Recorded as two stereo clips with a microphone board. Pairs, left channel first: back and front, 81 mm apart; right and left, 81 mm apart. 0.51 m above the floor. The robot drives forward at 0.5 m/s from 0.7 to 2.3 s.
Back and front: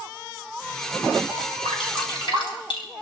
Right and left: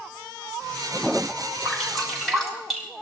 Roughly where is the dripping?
Behind.